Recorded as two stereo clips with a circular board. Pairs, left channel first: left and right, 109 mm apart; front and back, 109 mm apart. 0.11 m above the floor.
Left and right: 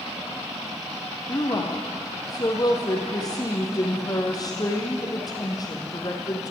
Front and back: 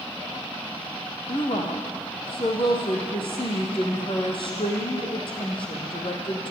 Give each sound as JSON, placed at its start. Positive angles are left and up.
{"t": 1.3, "sound": "a woman speaking", "azimuth_deg": 35, "distance_m": 4.5}